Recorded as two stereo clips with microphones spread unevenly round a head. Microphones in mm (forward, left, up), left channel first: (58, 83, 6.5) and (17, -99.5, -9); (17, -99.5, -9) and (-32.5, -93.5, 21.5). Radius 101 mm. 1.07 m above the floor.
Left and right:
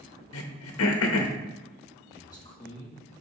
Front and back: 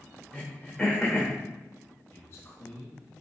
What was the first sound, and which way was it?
Throat clearing, 85° left.